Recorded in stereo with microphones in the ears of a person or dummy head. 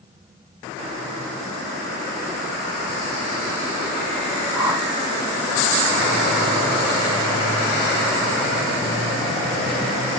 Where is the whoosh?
20° right (ahead or behind), 1.7 m.